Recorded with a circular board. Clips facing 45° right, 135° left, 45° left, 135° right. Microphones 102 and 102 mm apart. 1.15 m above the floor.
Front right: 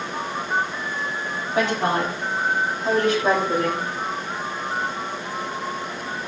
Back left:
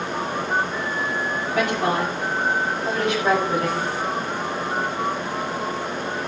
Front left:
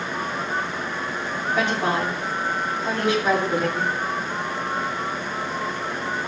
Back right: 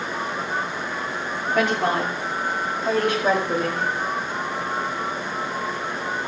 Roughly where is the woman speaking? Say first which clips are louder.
Front right 1 dB, back right 2 dB; right.